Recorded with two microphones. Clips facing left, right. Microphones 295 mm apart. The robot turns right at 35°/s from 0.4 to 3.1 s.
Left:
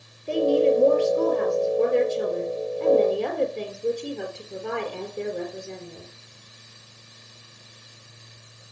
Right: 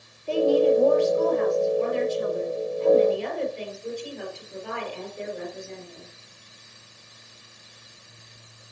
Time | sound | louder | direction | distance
0.3 | a woman speaking | even | 20° left | 3.5 m